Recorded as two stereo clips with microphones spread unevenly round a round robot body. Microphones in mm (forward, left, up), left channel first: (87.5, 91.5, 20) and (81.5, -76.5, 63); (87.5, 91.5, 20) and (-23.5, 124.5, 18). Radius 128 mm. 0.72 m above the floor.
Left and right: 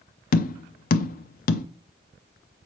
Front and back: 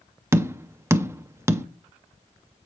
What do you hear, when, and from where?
0.3 s tapping: 95° left, 0.5 m